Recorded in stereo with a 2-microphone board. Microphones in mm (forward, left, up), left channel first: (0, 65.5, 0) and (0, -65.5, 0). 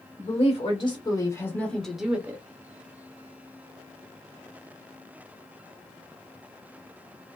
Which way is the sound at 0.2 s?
50° left (ahead or behind).